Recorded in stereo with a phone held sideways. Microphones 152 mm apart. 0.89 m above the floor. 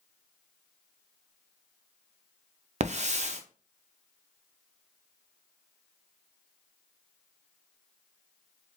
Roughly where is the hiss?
Right.